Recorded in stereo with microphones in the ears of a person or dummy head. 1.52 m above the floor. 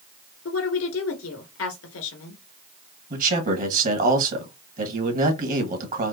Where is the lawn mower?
No lawn mower in this recording.